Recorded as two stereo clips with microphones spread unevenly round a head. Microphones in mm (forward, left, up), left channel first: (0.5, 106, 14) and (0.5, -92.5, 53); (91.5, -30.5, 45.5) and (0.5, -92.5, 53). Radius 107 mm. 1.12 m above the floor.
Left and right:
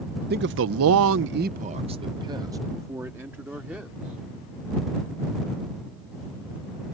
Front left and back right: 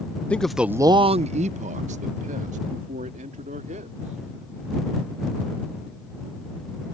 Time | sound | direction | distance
0.3 | a man speaking | 45° right | ?